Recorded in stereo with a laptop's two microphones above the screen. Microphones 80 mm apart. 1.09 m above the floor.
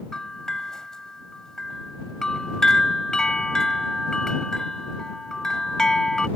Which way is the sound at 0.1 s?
5° left (ahead or behind).